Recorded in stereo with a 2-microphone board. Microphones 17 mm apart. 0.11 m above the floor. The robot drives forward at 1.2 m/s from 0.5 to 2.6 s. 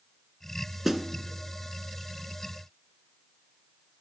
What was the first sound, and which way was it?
A snare drum, 20° right (ahead or behind).